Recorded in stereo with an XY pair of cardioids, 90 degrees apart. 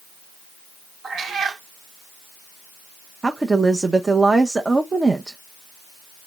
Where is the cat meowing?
60° right, 1.4 m.